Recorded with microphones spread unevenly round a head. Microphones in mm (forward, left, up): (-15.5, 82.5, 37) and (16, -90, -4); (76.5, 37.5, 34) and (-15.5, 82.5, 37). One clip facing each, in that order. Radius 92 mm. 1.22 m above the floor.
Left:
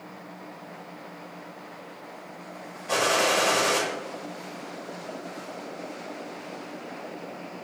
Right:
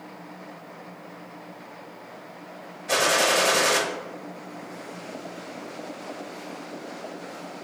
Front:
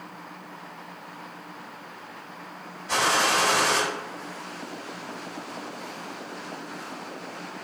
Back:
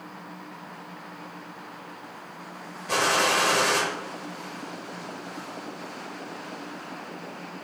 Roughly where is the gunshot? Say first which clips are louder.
Right 1 dB, even; behind right.